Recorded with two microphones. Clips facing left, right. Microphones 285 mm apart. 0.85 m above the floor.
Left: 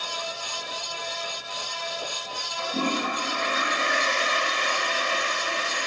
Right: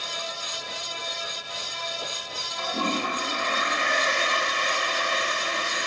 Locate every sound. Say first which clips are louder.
2.6 s a toilet flushing: left 2 dB; 30° left (ahead or behind), 5 m